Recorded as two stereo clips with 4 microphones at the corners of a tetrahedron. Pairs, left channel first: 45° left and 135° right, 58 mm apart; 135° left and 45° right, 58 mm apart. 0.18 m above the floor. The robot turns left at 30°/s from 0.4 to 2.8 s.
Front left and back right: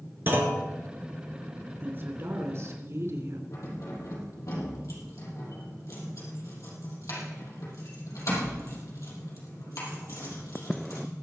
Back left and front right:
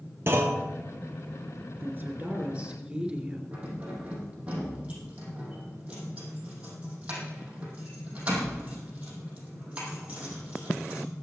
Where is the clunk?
85° right, 2.5 m; by 0.6 s 90° right, 2.5 m.